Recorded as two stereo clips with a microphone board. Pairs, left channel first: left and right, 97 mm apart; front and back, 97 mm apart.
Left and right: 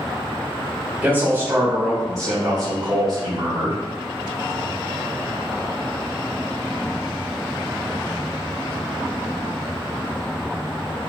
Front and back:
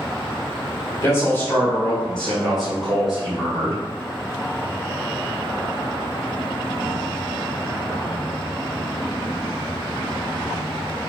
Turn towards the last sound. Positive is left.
turn(degrees=-105)